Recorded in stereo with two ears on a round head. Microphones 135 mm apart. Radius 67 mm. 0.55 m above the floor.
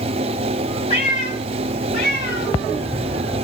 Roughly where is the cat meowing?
Left.